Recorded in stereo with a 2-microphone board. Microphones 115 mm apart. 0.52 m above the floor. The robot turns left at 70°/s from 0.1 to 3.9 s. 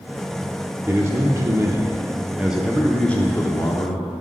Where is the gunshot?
I don't hear a gunshot.